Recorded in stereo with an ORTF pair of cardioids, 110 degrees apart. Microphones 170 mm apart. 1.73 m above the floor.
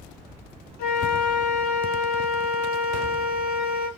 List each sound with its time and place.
0.8 s a flute: 65° left, 0.9 m